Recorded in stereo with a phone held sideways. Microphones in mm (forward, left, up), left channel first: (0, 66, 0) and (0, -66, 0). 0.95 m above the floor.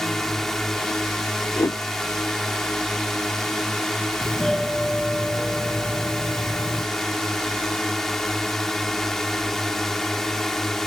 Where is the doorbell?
5° left (ahead or behind).